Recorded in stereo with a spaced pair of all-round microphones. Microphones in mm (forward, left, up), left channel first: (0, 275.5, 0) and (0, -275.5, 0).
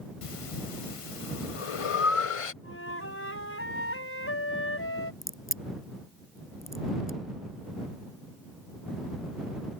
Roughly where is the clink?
I don't hear a clink.